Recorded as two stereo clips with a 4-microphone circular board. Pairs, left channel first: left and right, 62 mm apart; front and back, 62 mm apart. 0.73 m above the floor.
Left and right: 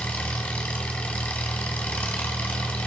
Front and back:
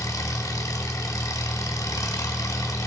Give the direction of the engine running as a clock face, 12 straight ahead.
11 o'clock.